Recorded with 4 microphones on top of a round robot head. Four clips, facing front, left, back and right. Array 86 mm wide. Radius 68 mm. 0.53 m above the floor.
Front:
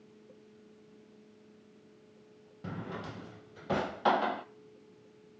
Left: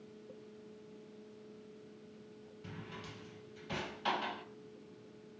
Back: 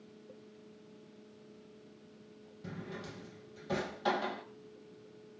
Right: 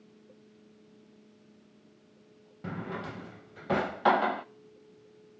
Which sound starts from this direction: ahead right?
A drawer, at 2.6 s.